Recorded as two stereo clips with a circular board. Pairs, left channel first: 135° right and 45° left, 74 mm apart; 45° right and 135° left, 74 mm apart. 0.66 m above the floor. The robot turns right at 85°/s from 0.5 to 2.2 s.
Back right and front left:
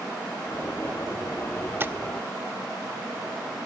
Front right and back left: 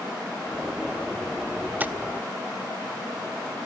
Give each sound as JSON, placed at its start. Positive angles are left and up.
{"t": 1.8, "sound": "tapping", "azimuth_deg": 80, "distance_m": 0.9}